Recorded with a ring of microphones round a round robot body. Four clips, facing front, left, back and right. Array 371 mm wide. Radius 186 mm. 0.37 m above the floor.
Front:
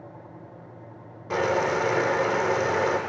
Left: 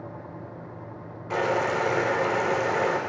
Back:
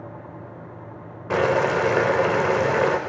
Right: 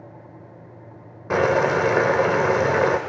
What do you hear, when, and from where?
1.3 s boiling: 120° right, 0.9 m